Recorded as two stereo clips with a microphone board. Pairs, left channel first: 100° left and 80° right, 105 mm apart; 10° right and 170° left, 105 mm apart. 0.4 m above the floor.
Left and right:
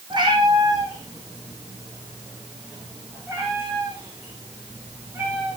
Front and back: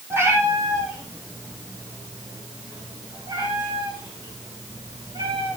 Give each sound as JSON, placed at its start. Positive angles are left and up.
{"t": 0.1, "sound": "a cat meowing", "azimuth_deg": -125, "distance_m": 4.5}